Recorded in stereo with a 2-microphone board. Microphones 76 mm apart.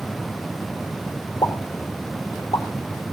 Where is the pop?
65° left (ahead or behind), 3 m.